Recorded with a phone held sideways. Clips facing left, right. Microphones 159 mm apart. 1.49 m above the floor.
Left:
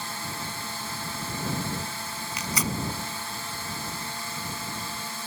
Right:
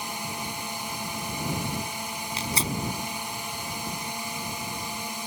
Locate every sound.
0.0 s a drone: 15° right (ahead or behind)
2.4 s tearing paper: 25° right (ahead or behind)